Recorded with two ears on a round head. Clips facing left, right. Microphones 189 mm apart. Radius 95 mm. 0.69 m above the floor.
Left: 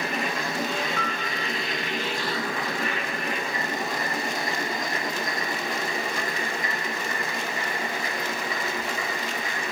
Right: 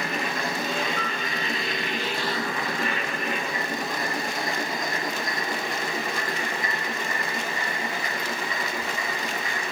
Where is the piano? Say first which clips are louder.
Even; 60° left (ahead or behind), 1.9 m.